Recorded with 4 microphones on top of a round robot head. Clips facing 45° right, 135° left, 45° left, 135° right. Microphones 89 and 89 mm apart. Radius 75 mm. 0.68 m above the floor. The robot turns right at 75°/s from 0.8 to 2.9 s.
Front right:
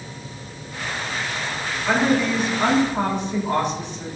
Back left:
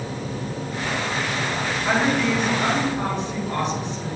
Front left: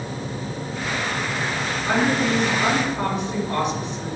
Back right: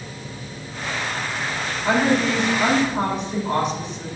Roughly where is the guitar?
I don't hear a guitar.